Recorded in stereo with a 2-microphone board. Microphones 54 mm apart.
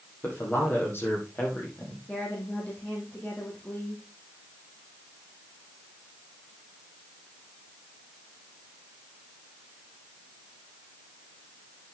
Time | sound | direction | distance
0.2 | a man speaking | 35° left (ahead or behind) | 6 m
2.1 | a woman speaking | 25° left (ahead or behind) | 4.5 m